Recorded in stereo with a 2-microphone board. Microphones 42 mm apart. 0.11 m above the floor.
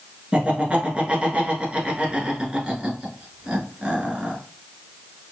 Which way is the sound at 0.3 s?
30° right (ahead or behind).